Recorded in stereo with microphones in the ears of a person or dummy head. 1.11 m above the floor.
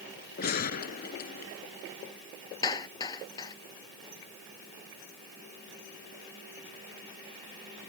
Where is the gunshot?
50° left (ahead or behind).